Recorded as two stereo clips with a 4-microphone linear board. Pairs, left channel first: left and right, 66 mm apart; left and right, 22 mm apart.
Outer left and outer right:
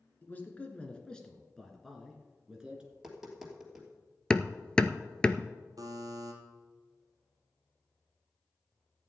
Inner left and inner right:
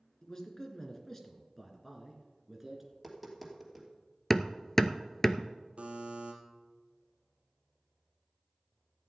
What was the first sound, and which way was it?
A man speaking, 25° left (ahead or behind).